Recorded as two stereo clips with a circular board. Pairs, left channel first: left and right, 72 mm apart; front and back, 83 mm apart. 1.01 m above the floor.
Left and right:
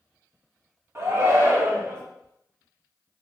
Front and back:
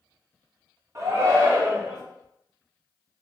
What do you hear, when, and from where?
0.9 s a shout: 135° right, 1.1 m